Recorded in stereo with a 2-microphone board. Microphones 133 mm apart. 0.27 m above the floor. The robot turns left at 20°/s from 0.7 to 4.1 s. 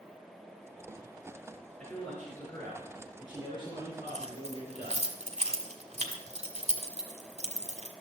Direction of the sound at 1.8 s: 175° left.